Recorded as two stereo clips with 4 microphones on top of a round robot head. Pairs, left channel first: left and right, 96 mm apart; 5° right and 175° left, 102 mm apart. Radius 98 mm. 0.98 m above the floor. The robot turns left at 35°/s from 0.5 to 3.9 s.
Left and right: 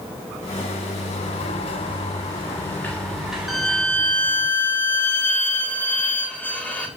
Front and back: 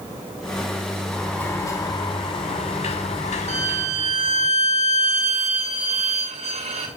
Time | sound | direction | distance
1.1 | a sliding door | 75° left | 7 m
3.5 | a violin | straight behind | 5.5 m